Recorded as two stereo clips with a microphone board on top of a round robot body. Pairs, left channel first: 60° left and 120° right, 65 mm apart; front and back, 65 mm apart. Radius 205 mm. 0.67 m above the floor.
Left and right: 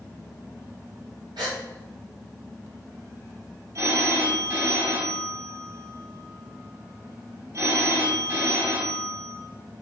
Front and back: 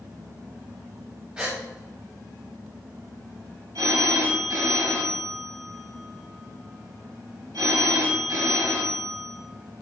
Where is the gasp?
105° right, 0.8 m.